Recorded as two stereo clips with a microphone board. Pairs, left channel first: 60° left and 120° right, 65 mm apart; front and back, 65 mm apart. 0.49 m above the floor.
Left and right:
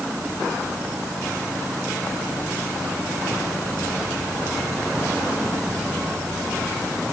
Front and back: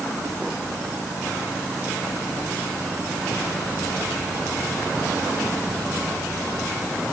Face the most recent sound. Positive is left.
No sound to turn to.